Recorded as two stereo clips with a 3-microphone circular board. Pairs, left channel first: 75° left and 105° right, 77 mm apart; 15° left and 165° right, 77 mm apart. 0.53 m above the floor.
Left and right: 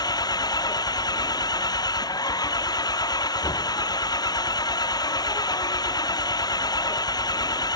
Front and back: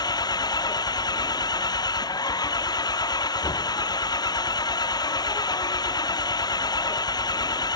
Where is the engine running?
45° left.